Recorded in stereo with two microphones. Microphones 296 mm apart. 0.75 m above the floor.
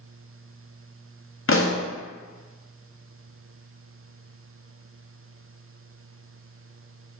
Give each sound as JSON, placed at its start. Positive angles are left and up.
{"t": 1.5, "sound": "a pop", "side_deg": 50, "distance_m": 0.5}